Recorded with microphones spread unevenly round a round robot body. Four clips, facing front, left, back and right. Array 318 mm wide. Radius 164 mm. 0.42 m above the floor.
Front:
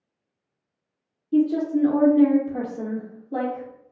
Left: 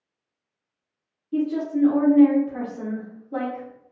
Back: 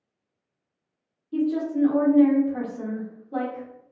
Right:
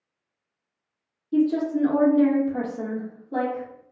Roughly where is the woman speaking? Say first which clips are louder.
Right 2 dB, front 4 dB; ahead.